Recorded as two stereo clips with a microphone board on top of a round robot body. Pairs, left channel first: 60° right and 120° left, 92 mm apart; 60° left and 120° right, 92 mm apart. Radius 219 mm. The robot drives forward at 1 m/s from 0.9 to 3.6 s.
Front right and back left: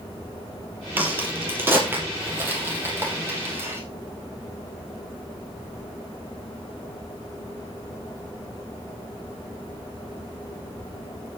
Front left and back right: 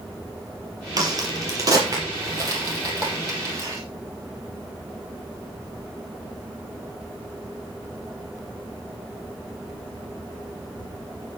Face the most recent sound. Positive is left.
turn(degrees=-175)